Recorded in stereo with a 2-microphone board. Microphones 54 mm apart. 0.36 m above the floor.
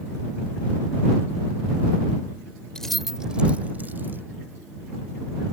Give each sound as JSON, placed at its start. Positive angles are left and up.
{"t": 2.8, "sound": "keys jangling", "side_deg": 15}